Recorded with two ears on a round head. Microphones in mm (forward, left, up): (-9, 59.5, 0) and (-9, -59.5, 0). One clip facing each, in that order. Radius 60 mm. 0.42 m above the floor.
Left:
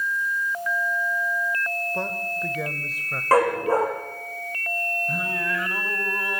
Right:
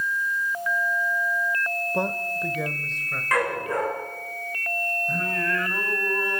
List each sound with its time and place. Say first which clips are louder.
1.9 s a man speaking: right 2 dB; 15° right (ahead or behind), 1.1 m; by 3.2 s 10° left (ahead or behind), 1.5 m
3.3 s a dog barking: left 6 dB; 35° left (ahead or behind), 7.5 m
5.1 s singing: right 1 dB; 5° left (ahead or behind), 3 m